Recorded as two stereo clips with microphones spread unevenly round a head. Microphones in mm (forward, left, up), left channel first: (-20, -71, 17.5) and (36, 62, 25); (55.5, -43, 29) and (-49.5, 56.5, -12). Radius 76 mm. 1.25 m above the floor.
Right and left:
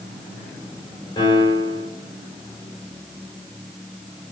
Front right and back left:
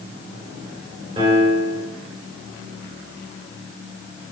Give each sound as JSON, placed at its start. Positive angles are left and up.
{"t": 1.2, "sound": "a piano", "azimuth_deg": -170, "distance_m": 4.0}